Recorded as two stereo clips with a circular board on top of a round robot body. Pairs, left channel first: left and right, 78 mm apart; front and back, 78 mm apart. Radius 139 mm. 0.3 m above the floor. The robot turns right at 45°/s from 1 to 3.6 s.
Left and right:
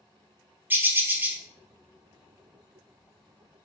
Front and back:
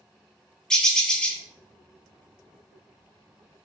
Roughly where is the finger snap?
I don't hear a finger snap.